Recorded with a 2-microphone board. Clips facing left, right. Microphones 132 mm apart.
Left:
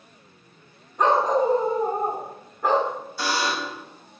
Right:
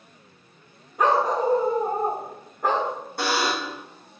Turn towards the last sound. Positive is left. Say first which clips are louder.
# right 1 dB
turn(degrees=-60)  # may be behind; listen again after turning